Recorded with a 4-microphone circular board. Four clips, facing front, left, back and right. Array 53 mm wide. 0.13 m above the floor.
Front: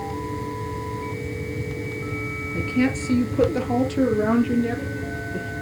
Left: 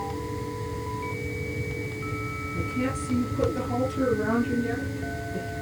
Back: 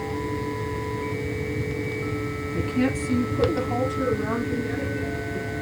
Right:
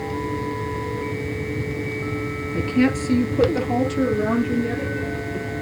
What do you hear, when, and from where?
2.5 s a woman speaking: 80° right, 3 m; by 5.5 s straight ahead, 4.5 m